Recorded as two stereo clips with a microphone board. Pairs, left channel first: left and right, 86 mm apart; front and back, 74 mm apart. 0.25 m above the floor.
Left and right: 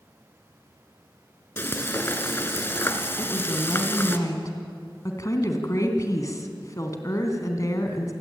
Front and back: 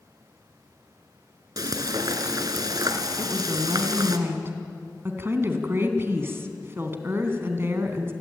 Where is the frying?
155° left, 1.8 m.